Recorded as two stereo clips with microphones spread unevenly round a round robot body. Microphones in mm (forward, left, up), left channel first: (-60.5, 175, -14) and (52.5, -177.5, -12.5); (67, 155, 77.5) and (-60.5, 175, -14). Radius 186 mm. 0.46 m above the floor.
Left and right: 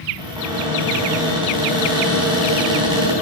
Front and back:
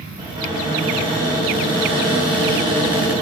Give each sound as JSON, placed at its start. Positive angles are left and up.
{"t": 0.2, "sound": "a cupboard door", "azimuth_deg": -150, "distance_m": 4.5}